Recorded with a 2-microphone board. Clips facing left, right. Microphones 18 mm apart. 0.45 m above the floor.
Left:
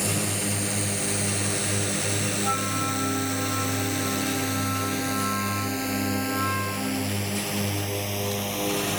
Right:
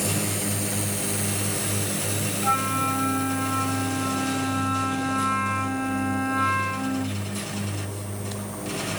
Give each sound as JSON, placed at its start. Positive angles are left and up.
{"t": 0.0, "sound": "a drone", "side_deg": 5}
{"t": 2.4, "sound": "a flute", "side_deg": -15}